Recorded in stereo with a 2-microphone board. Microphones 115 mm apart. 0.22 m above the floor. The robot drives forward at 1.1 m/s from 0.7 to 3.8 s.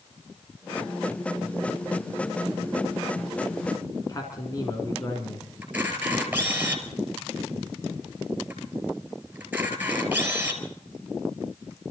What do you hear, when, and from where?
4.1 s a man speaking: 35° left (ahead or behind), 2 m
5.6 s a camera shutter: 15° right (ahead or behind), 4 m